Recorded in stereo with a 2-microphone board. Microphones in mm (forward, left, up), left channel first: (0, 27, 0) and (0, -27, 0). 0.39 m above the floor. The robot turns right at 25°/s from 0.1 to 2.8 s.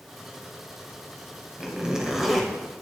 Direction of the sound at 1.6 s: 20° right (ahead or behind).